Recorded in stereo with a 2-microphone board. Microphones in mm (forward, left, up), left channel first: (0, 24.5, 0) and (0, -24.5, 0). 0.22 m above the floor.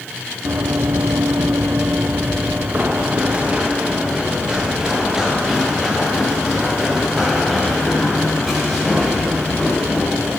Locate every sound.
0.5 s running footsteps: 55° right (ahead or behind), 1.0 m; by 10.3 s 5° right (ahead or behind), 7 m